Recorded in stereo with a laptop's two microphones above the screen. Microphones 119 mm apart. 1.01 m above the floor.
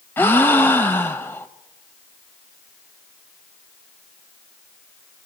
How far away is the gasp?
About 1.0 m.